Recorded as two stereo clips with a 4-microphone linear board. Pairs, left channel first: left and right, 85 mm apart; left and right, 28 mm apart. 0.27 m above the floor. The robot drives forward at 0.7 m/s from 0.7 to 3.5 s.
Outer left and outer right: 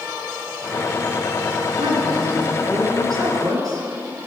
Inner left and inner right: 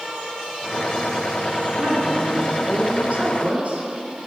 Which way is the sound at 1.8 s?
60° right (ahead or behind).